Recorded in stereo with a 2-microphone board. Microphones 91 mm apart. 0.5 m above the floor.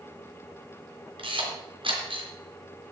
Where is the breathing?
I don't hear breathing.